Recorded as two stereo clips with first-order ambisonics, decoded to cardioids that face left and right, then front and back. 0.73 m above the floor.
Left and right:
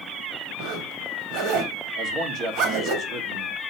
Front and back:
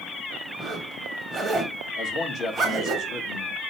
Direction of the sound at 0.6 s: 100° right.